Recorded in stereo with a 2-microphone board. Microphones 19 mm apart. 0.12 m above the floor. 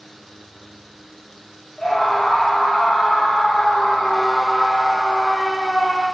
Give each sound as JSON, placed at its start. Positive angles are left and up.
{"t": 1.8, "sound": "a scream", "side_deg": 35, "distance_m": 3.0}